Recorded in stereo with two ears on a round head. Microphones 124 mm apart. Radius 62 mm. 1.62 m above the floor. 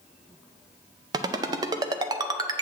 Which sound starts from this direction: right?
A ringtone, at 1.1 s.